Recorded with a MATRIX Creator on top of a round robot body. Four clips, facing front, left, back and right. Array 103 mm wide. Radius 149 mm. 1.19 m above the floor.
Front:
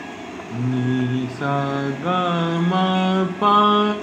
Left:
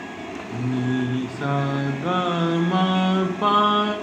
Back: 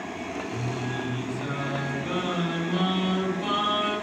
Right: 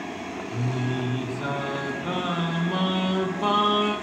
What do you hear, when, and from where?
0.5 s singing: 25° left, 0.8 m